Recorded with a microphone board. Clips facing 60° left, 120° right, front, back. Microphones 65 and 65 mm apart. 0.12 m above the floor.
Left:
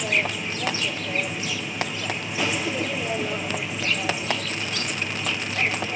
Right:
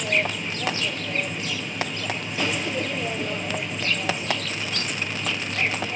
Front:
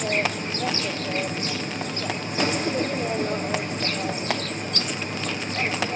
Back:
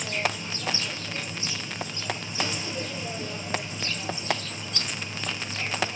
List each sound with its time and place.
0.0 s an insect: 25° right, 0.8 m